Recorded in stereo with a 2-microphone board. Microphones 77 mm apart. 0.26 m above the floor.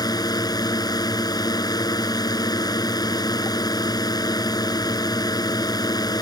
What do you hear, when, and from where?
0.0 s a drone: 60° left (ahead or behind)